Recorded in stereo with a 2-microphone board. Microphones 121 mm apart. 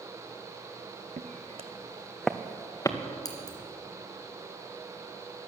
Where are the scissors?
30° left (ahead or behind), 2.5 m.